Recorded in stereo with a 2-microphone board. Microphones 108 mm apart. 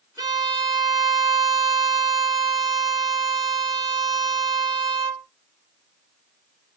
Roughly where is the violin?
Right.